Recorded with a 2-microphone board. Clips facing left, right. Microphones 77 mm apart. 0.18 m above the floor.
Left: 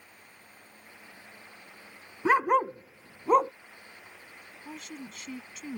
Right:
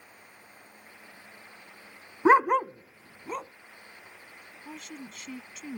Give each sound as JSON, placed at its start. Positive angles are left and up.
{"t": 2.2, "sound": "a dog barking", "side_deg": -35}
{"t": 4.7, "sound": "a woman speaking", "side_deg": 0}